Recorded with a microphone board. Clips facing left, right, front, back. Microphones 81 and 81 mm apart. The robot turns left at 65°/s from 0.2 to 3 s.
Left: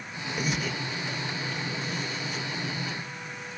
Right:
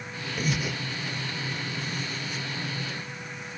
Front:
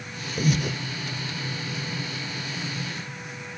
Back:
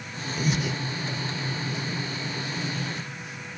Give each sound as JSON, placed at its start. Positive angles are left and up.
{"t": 0.4, "sound": "breathing", "azimuth_deg": 10, "distance_m": 0.5}